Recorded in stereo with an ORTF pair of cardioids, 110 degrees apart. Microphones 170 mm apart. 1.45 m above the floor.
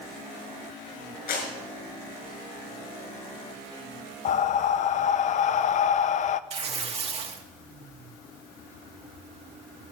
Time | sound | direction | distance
1.3 | a clap | 60° left | 6 m
4.2 | breathing | 45° left | 0.6 m
6.5 | tearing paper | 40° right | 1.9 m